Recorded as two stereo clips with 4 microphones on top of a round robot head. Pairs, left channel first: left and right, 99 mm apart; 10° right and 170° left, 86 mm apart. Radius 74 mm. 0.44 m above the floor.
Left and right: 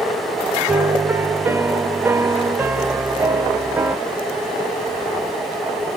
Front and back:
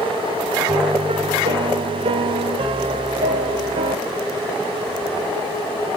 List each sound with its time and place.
0.7 s a piano: 160° right, 0.6 m